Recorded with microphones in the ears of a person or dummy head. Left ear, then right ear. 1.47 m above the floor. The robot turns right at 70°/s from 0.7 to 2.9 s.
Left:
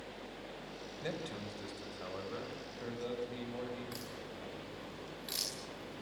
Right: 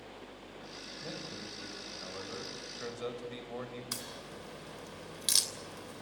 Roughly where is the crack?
Right.